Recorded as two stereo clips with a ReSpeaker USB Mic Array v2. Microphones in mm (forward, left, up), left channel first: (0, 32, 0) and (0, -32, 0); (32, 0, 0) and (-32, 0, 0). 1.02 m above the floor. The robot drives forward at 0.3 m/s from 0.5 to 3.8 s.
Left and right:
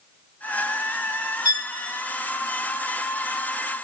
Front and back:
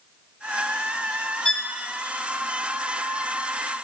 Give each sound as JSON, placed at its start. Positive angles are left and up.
{"t": 1.4, "sound": "a violin", "azimuth_deg": 75, "distance_m": 0.8}